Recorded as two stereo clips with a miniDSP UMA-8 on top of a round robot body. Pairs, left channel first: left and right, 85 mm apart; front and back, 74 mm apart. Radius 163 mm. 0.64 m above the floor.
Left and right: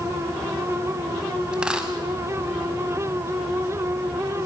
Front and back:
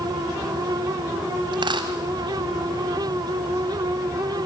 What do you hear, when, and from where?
1.5 s a dropped coin: 170° right, 0.7 m